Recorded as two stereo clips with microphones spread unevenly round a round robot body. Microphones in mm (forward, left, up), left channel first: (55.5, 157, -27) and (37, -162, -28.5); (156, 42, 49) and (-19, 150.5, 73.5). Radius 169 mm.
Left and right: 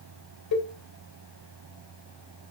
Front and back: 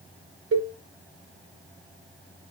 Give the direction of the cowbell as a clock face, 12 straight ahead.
8 o'clock.